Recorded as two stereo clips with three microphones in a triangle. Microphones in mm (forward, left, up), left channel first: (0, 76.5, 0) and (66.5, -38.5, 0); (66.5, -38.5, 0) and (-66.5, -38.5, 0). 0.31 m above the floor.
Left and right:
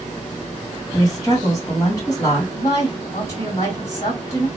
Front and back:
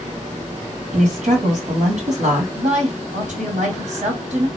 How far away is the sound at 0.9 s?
About 2.5 m.